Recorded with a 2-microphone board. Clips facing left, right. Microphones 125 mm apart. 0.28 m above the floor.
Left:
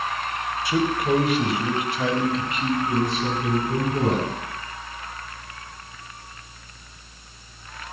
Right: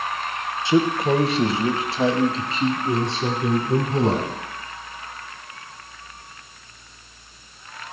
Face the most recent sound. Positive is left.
turn(degrees=-30)  # may be behind; listen again after turning